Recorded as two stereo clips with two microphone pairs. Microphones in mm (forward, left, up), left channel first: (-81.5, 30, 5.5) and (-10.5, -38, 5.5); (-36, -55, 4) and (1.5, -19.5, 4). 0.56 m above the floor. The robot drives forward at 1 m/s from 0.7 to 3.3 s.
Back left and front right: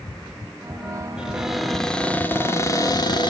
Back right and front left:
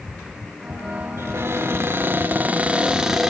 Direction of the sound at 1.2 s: 35° left.